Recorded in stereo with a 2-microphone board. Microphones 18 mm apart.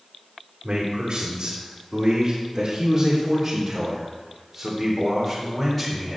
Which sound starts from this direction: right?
A man speaking, at 0.6 s.